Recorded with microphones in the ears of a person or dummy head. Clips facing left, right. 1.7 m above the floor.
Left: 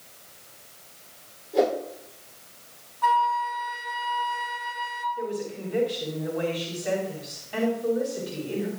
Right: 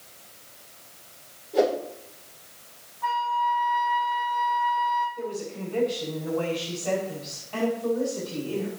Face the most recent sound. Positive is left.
turn(degrees=15)  # may be behind; listen again after turning